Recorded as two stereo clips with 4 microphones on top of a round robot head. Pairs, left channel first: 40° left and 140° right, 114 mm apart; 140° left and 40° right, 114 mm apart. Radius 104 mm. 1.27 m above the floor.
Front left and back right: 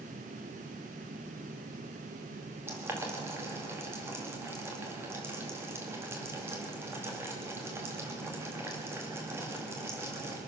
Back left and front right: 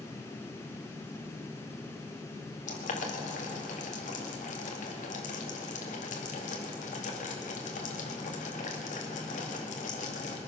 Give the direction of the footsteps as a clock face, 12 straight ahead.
I don't hear footsteps.